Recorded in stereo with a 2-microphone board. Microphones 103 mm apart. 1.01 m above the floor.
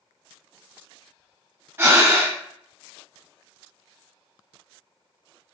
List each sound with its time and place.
1.8 s breathing: 20° right (ahead or behind), 2.5 m